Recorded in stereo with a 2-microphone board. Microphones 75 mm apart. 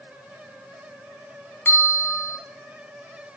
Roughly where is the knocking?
No knocking in this recording.